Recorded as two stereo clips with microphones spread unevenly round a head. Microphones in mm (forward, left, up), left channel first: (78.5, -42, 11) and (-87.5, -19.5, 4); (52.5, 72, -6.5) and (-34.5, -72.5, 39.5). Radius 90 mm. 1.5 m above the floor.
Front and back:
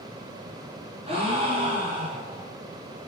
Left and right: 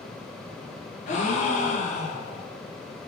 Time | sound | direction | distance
1.1 | a gasp | 115° left | 0.6 m